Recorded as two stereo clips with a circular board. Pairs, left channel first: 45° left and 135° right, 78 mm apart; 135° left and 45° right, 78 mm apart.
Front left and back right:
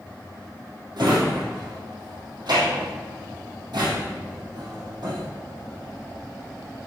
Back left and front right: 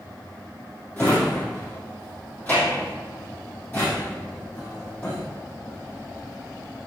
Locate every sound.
1.0 s a drawer: 160° right, 3 m